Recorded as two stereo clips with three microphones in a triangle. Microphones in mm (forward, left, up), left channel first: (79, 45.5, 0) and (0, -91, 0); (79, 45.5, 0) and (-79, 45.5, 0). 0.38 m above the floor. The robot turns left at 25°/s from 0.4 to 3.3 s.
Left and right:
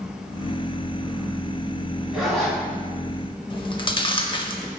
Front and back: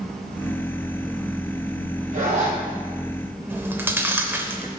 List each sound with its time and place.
2.1 s a zipper: 155° left, 1.8 m; by 2.6 s 140° left, 1.8 m
3.5 s chewing: 105° left, 0.6 m